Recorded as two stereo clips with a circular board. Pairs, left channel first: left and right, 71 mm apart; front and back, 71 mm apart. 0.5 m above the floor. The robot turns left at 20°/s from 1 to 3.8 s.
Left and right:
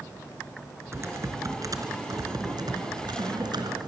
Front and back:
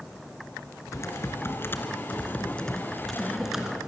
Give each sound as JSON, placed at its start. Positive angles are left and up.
{"t": 0.9, "sound": "typing on a keyboard", "azimuth_deg": -45, "distance_m": 3.0}